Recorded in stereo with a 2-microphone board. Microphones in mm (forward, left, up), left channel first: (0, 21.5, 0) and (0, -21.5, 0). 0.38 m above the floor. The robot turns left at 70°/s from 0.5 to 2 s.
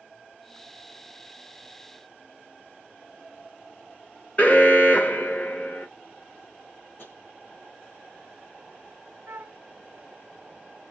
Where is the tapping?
55° left (ahead or behind), 3.5 m.